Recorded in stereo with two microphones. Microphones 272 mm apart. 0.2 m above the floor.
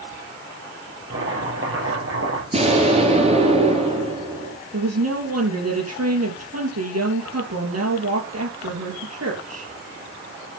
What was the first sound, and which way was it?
Chopping, 50° right (ahead or behind).